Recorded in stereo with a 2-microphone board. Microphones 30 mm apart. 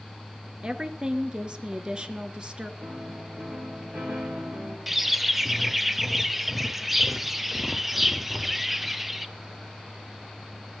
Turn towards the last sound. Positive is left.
turn(degrees=-10)  # may be behind; listen again after turning